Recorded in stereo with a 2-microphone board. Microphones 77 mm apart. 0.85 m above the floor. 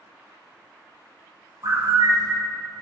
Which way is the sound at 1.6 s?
55° right (ahead or behind).